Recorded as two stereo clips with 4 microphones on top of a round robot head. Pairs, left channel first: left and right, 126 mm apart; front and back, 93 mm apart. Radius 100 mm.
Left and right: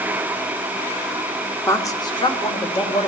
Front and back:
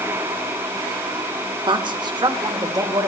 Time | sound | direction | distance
1.7 | a woman speaking | 160° left | 1.3 m